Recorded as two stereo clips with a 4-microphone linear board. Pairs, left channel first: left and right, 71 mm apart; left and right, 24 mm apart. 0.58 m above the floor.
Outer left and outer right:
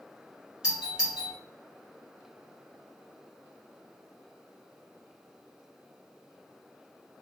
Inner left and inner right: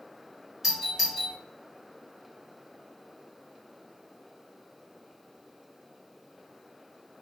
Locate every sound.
0.6 s a doorbell: 10° right (ahead or behind), 1.4 m